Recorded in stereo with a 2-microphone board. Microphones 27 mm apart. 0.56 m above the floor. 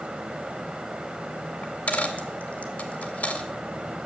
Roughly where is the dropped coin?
Left.